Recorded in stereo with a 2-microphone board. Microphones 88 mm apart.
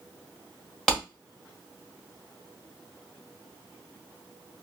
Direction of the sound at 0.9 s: 5° left (ahead or behind).